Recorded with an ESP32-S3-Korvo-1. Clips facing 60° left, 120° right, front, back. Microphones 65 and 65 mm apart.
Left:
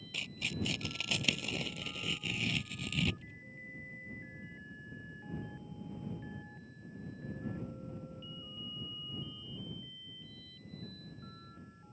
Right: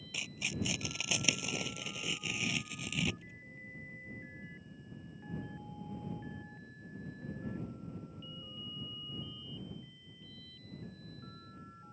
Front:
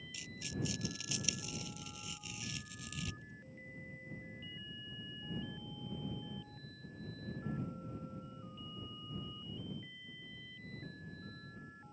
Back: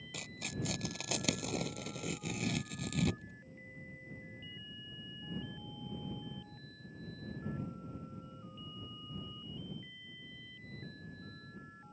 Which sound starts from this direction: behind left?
Tearing paper, at 0.1 s.